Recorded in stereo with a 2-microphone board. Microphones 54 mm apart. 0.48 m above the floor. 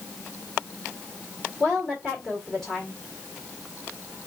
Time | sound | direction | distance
1.6 | a woman speaking | 5° left (ahead or behind) | 1.6 m